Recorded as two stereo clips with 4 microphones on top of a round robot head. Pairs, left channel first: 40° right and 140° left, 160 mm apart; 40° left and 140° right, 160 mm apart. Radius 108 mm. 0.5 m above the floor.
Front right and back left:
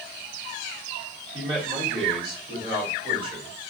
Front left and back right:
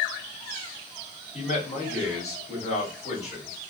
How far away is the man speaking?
About 2.5 m.